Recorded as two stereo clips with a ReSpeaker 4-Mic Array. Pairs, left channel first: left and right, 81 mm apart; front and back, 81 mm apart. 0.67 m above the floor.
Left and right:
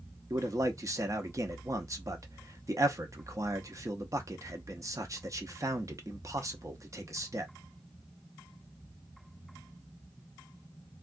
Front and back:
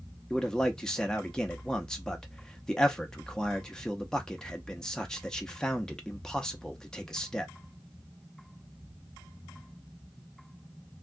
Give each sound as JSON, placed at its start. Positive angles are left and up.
{"t": 0.3, "sound": "a man speaking", "azimuth_deg": -80, "distance_m": 0.7}